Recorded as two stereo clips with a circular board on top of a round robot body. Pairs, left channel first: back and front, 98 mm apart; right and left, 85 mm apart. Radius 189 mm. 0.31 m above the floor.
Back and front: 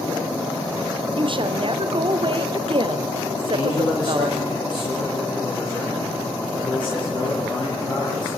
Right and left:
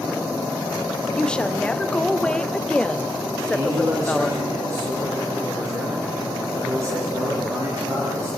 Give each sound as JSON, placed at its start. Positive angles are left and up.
{"t": 1.1, "sound": "a woman speaking", "azimuth_deg": -15, "distance_m": 2.0}
{"t": 3.5, "sound": "a man speaking", "azimuth_deg": 145, "distance_m": 10.0}